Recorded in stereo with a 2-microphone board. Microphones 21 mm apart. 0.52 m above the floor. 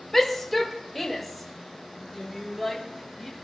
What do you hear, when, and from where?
0.1 s a shout: 10° left (ahead or behind), 1.8 m; by 3.3 s centre (ahead or behind), 5 m